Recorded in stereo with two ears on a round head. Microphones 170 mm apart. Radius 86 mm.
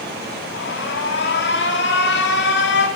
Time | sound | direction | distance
0.5 | an alarm | 60° left (ahead or behind) | 3 m